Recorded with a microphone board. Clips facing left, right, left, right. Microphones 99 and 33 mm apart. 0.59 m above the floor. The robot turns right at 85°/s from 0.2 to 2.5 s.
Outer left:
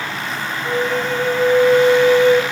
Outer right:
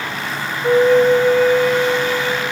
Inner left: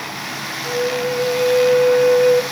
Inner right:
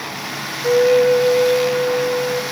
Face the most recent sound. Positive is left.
turn(degrees=95)